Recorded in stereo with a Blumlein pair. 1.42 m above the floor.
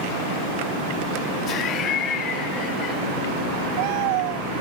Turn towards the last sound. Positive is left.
turn(degrees=30)